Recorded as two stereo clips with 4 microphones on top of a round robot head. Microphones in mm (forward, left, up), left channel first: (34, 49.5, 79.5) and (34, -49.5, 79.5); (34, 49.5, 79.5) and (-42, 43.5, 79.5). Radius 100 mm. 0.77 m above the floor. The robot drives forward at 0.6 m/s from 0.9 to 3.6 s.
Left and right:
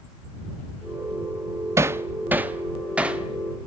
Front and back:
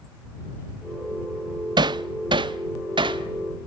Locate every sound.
1.8 s hammering: 155° right, 0.5 m; by 3.7 s 170° right, 1.6 m